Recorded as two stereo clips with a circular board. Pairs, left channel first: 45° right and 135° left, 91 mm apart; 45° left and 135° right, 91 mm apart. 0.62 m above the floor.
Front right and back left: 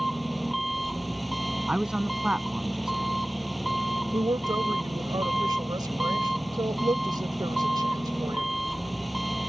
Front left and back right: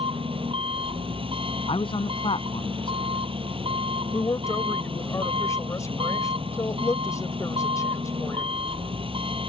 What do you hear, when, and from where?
0.0 s an engine running: 135° right
1.7 s a man speaking: 55° left
4.1 s a woman speaking: 95° left